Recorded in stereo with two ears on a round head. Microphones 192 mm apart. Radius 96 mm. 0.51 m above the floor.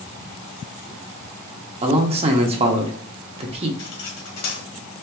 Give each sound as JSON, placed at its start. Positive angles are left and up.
{"t": 1.8, "sound": "a man speaking", "side_deg": -30, "distance_m": 0.7}
{"t": 3.8, "sound": "cutlery clinking", "side_deg": 70, "distance_m": 1.6}